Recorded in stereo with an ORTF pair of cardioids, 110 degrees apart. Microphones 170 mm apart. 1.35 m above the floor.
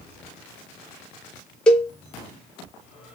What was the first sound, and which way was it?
A cowbell, 5° left.